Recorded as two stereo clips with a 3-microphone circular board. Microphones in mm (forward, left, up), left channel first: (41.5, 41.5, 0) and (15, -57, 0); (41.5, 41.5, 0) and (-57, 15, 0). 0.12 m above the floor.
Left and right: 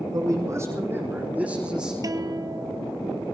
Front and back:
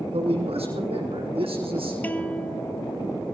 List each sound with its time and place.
0.1 s a man speaking: 160° right, 5 m; by 1.9 s 175° left, 6 m
2.0 s a guitar: 55° right, 1.1 m